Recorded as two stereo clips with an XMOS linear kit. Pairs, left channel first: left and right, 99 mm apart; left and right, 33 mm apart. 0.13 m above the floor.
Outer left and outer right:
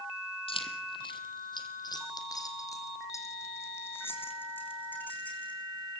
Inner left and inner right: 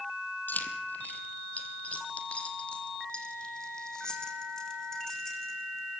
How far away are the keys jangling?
About 2.5 m.